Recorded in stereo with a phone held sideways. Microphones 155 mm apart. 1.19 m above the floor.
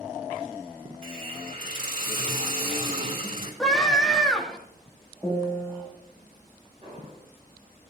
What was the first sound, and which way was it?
A hiss, 60° right (ahead or behind).